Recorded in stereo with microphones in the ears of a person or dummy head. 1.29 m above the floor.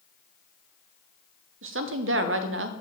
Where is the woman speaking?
55° right (ahead or behind), 0.6 m.